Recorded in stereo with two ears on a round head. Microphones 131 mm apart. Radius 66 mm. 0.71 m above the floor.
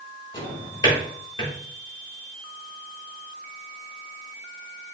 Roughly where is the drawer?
Left.